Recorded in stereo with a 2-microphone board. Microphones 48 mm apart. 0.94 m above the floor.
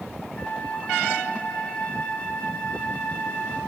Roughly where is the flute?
Left.